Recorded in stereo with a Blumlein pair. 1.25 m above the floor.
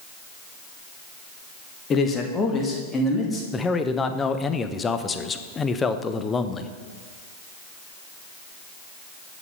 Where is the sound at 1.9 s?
25° left, 1.4 m; by 3.4 s 10° left, 3 m.